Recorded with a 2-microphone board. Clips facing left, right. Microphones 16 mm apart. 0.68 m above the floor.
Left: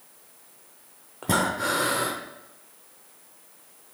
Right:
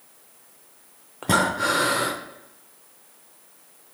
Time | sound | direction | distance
1.2 | breathing | 10° right (ahead or behind) | 0.6 m